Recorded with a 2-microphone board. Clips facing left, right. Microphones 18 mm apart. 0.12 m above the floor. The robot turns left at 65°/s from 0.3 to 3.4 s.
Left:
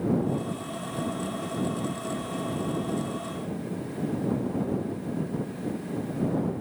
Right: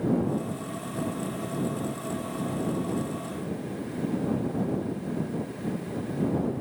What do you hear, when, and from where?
Only background noise.